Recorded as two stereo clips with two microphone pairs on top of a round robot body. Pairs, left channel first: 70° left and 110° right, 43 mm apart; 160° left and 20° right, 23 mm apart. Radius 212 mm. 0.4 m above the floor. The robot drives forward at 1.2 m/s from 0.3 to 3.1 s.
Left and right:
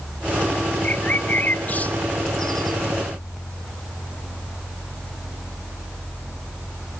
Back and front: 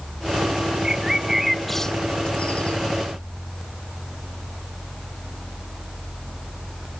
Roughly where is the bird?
Ahead.